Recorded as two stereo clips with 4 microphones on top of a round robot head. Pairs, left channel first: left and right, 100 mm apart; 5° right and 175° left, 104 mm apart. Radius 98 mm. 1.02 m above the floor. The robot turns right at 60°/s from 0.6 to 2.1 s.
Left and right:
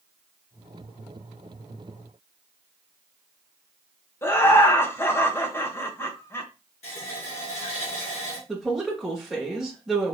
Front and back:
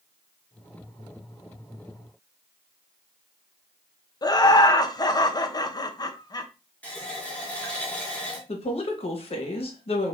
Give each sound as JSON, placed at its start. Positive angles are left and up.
{"t": 4.2, "sound": "laughter", "azimuth_deg": 30, "distance_m": 0.8}
{"t": 6.8, "sound": "a running tap", "azimuth_deg": 75, "distance_m": 1.4}
{"t": 8.5, "sound": "a woman speaking", "azimuth_deg": -5, "distance_m": 1.3}